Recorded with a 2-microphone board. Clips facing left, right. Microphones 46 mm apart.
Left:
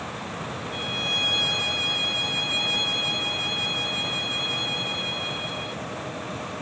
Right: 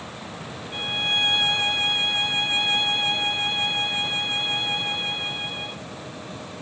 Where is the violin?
35° right (ahead or behind), 0.8 m.